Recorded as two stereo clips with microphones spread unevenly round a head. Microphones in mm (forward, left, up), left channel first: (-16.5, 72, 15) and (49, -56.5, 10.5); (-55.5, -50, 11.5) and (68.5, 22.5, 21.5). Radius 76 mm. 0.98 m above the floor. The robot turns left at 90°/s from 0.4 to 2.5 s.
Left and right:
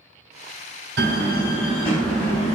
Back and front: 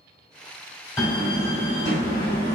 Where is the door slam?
80° right, 1.9 m; by 2.6 s 140° left, 1.9 m.